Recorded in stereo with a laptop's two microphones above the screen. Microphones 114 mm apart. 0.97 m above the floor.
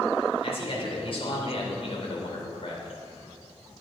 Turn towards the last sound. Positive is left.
turn(degrees=55)  # may be behind; listen again after turning